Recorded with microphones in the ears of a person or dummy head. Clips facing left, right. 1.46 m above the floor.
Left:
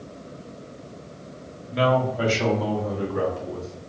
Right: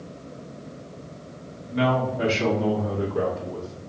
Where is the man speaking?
80° left, 1.3 m; by 3.8 s 65° left (ahead or behind), 2.5 m.